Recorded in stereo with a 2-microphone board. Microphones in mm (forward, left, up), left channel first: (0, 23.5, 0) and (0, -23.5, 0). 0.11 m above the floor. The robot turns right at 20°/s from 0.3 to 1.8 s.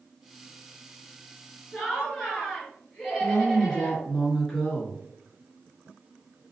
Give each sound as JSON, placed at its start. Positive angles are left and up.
{"t": 1.7, "sound": "laughter", "side_deg": 10, "distance_m": 1.8}
{"t": 3.2, "sound": "a woman speaking", "side_deg": 10, "distance_m": 1.2}